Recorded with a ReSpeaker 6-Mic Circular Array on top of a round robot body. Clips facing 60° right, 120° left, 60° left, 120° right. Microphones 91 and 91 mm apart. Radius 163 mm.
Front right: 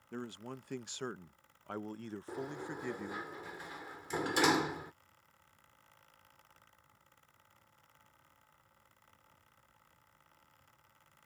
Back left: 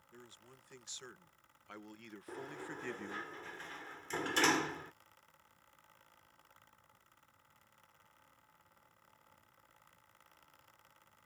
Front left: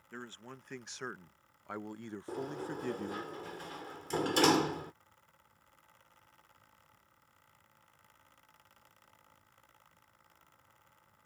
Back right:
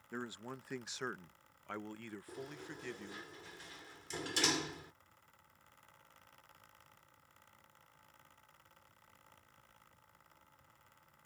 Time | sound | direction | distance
0.1 | a man speaking | 45° right | ?
2.3 | a sliding door | 20° left | ?